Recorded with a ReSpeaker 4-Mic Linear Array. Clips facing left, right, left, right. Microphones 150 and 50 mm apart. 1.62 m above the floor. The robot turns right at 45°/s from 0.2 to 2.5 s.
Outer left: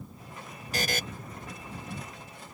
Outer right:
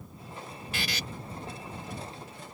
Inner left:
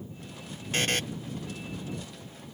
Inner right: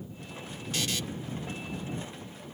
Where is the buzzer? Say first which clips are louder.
Outer left 5 dB, inner left 5 dB; 40° left (ahead or behind); by 1.0 s 55° left (ahead or behind).